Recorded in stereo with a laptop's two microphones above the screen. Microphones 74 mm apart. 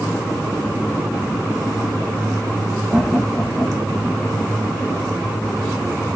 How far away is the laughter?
About 0.8 m.